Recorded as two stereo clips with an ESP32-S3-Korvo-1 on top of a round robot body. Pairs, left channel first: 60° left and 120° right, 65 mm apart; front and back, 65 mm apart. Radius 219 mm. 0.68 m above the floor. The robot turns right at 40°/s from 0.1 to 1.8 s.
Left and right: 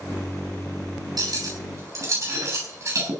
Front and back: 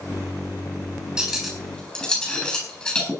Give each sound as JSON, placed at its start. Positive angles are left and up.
{"t": 1.2, "sound": "cutlery clinking", "azimuth_deg": -100, "distance_m": 7.0}